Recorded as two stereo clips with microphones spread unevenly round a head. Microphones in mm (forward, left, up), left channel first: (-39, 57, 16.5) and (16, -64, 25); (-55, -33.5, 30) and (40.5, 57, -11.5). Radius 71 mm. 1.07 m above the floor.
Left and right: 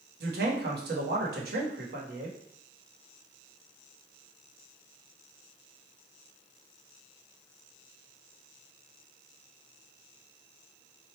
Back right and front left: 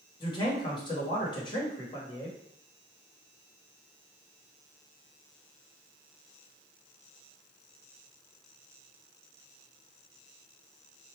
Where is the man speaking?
75° right, 1.3 m.